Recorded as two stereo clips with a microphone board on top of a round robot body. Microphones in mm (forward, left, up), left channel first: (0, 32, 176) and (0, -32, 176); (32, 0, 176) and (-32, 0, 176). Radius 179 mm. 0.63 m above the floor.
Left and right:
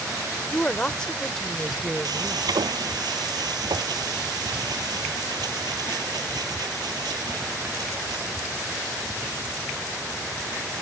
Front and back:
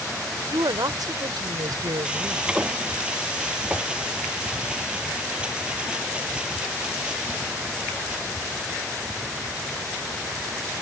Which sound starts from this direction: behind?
A woman speaking, at 0.5 s.